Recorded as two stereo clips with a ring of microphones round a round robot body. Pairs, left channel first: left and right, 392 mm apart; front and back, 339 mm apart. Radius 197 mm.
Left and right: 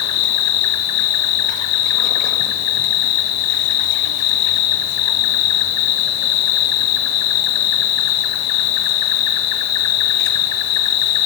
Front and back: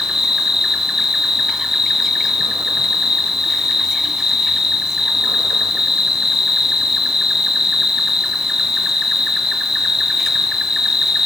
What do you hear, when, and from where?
0.0 s an insect: 90° left, 1.3 m